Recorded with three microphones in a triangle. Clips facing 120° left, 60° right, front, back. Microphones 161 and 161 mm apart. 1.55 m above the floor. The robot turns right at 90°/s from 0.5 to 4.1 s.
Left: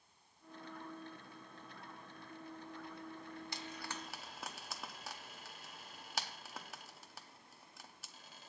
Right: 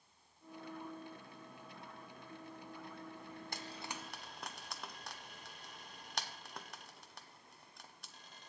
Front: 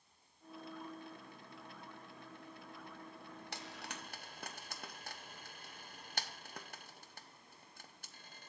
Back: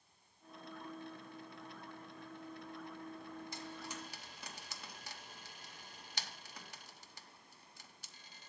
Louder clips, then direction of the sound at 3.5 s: Right 2 dB, back 2 dB; 20° right.